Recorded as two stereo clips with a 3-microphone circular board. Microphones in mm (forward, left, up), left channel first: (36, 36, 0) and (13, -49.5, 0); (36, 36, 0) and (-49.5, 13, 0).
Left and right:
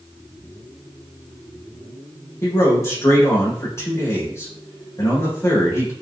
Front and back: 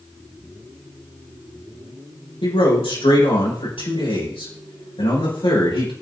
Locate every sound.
2.4 s a man speaking: 15° left, 7.5 m